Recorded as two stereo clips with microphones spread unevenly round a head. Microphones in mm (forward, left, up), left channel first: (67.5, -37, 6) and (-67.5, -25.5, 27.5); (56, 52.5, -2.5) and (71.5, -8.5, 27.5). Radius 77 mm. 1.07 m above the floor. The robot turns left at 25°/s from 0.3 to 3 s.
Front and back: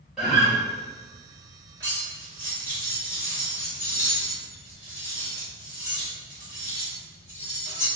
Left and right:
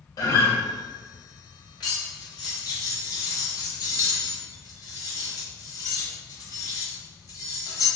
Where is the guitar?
85° left, 1.0 m; by 0.6 s 80° left, 1.0 m.